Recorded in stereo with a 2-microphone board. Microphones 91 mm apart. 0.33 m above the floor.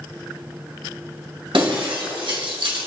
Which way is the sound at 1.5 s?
70° right (ahead or behind).